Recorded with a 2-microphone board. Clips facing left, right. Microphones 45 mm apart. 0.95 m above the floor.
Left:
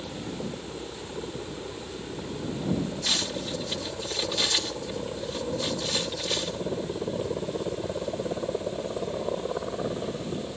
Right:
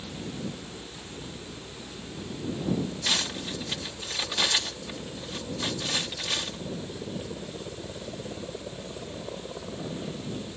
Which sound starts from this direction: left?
A helicopter, at 0.0 s.